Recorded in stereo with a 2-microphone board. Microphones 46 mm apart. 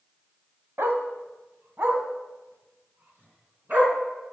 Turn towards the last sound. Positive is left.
turn(degrees=-40)  # may be behind; listen again after turning